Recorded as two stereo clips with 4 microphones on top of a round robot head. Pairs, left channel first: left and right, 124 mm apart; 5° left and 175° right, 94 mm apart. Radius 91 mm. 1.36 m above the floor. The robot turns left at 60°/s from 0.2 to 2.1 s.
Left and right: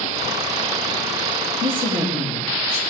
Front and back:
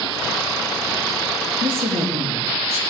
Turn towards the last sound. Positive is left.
turn(degrees=-165)